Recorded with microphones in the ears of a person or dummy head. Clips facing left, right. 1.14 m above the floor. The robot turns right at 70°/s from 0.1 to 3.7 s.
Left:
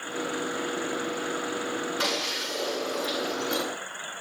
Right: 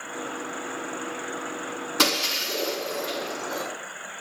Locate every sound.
2.0 s breaking glass: 85° right, 6.5 m; by 3.7 s 30° left (ahead or behind), 6.5 m